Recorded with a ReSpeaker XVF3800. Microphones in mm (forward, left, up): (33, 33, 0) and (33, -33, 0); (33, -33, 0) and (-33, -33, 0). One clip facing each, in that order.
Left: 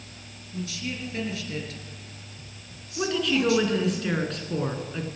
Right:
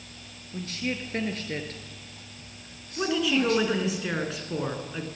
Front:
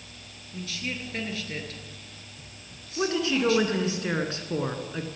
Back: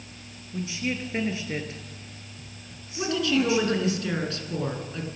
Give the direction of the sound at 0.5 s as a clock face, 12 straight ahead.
4 o'clock.